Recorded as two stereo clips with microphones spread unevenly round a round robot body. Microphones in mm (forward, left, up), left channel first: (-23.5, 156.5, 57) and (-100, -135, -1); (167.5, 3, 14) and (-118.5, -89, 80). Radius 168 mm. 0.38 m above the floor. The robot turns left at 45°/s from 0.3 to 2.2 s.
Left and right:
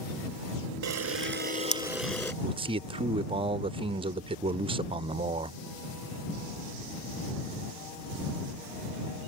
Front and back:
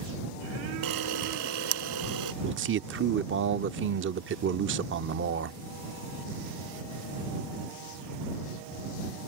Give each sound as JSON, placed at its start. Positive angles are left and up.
{"t": 0.8, "sound": "a camera shutter", "azimuth_deg": -140}
{"t": 2.4, "sound": "a man speaking", "azimuth_deg": -125}